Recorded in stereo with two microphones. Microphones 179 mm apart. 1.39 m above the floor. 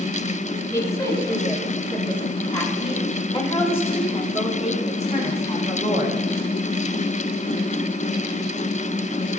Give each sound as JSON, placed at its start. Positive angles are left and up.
{"t": 0.7, "sound": "a woman speaking", "side_deg": 20, "distance_m": 7.5}